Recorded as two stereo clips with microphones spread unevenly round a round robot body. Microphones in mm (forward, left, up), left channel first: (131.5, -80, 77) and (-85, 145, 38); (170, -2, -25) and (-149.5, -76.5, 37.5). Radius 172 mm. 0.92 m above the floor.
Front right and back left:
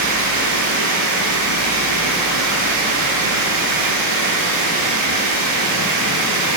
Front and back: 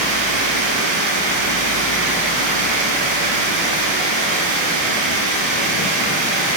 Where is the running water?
Straight behind, 7 m.